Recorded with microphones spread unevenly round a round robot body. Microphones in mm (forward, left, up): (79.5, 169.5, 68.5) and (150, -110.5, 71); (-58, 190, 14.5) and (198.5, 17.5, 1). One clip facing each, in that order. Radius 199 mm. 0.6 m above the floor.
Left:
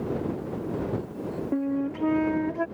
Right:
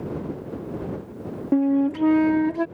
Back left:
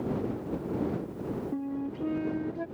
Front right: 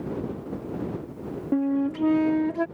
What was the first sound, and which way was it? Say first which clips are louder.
A flute: right 9 dB, front right 15 dB; 40° right.